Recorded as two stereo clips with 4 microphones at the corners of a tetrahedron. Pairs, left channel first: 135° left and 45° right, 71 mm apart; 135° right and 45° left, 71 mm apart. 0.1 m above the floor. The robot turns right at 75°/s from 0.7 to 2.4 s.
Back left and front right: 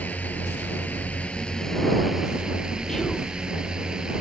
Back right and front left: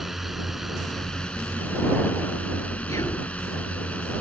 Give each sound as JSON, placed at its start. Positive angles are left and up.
{"t": 0.0, "sound": "a drone", "azimuth_deg": 130}
{"t": 2.9, "sound": "whispering", "azimuth_deg": -145}